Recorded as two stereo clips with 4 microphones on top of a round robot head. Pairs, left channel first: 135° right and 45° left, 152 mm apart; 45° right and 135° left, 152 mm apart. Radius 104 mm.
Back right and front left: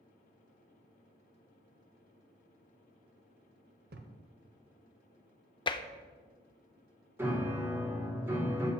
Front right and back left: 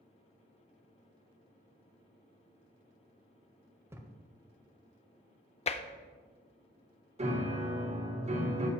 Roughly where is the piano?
Behind left.